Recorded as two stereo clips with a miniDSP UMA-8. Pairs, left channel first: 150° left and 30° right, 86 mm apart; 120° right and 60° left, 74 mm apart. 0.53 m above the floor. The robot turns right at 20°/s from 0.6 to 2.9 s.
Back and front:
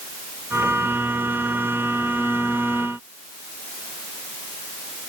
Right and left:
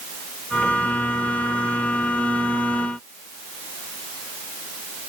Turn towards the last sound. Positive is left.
No sound to turn to.